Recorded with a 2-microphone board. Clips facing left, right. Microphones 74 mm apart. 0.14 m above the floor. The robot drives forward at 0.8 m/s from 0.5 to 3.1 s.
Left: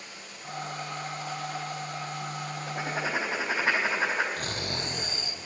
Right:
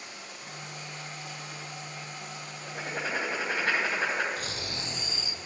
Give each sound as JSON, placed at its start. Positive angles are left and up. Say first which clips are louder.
{"t": 0.0, "sound": "running water", "louder": "even", "side_deg": -60, "distance_m": 5.0}
{"t": 2.7, "sound": "writing", "louder": "left 2 dB", "side_deg": 10, "distance_m": 4.0}
{"t": 4.4, "sound": "snoring", "louder": "left 3 dB", "side_deg": 45, "distance_m": 1.0}